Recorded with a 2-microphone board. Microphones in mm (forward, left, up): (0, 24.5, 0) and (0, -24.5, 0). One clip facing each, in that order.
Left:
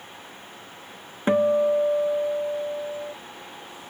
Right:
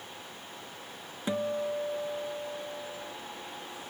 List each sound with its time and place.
1.3 s a guitar: 40° left (ahead or behind)